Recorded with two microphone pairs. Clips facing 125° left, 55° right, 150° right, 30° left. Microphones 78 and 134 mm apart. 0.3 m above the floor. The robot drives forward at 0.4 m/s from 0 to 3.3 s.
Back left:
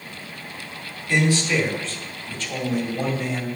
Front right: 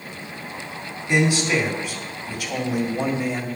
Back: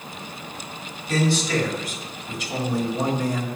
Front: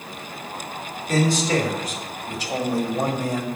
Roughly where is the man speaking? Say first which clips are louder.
Front right 1 dB, front 2 dB; ahead.